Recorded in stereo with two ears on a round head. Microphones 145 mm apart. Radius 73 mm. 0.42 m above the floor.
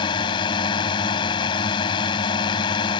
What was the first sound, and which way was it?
A drone, 30° left (ahead or behind).